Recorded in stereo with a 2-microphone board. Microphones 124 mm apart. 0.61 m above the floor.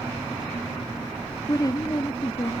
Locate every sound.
1.5 s a woman speaking: 30° left (ahead or behind), 0.6 m